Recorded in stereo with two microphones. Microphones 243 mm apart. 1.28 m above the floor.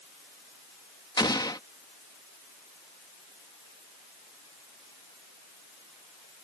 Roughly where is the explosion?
Centre.